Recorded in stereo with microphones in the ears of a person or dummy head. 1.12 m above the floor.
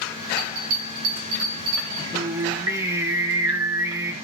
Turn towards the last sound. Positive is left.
turn(degrees=-15)  # may be behind; listen again after turning